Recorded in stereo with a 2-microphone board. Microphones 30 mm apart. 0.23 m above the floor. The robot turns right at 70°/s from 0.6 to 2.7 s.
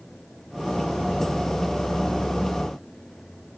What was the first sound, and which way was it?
Only background noise.